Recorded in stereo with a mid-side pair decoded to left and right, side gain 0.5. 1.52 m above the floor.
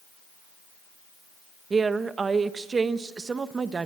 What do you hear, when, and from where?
1.7 s a woman speaking: 35° right, 1.4 m